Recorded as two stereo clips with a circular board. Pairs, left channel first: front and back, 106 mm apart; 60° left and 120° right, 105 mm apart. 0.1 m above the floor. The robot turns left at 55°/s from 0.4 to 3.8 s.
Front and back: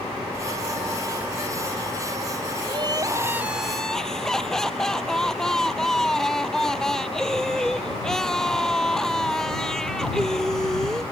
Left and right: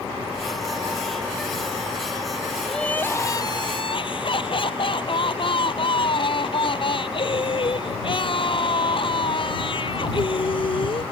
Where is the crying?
145° left; by 11.0 s 85° left.